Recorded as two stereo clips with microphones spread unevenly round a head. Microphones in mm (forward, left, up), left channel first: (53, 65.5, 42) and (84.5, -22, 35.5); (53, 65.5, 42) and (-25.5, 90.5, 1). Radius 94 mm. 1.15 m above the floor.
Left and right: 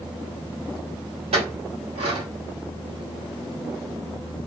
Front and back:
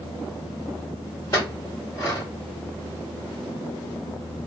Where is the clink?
75° right, 1.2 m.